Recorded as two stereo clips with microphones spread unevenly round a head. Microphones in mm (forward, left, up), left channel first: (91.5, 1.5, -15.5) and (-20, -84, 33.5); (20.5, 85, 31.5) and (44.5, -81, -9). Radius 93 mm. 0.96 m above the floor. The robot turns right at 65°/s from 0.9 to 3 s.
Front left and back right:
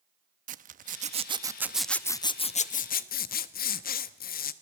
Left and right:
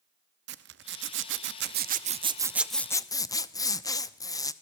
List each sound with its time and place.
0.5 s a zipper: 110° right, 0.9 m; by 4.5 s 25° left, 0.9 m